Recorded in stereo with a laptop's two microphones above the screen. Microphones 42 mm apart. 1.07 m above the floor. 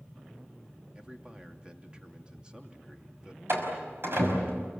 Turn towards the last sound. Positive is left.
turn(degrees=-65)  # may be behind; listen again after turning